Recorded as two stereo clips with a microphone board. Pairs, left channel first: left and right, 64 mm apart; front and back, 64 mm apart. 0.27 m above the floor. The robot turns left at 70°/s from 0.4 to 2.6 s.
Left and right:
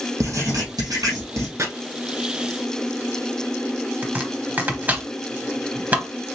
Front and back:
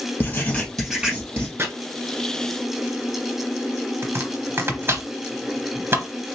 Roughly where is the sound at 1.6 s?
Behind right.